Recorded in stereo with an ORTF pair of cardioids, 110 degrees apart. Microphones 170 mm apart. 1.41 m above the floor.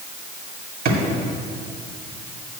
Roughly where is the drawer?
Ahead right.